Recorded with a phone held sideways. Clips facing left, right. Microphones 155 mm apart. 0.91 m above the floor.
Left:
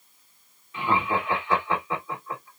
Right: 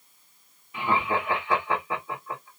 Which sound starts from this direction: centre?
Laughter, at 0.7 s.